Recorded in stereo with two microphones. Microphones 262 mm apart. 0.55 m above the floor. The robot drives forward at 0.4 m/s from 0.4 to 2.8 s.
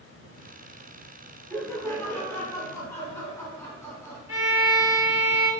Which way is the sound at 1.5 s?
10° left (ahead or behind).